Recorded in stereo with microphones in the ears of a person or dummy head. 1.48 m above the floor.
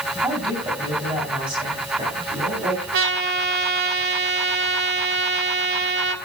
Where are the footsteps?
I don't hear footsteps.